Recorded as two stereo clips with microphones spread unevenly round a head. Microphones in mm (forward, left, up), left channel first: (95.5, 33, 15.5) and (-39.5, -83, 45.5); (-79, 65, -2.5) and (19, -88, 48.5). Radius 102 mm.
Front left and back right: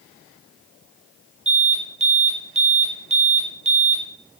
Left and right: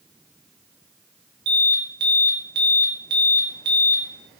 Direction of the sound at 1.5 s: 85° right.